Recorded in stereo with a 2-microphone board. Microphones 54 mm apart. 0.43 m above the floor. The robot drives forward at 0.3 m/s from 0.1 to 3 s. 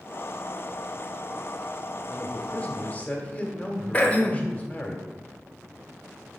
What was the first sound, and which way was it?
A man speaking, 25° left (ahead or behind).